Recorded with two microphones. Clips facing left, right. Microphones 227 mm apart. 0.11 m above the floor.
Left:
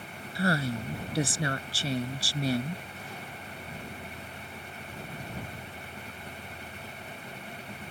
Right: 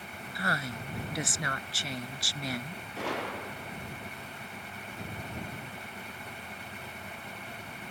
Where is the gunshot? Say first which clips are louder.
Right 9 dB; 85° right.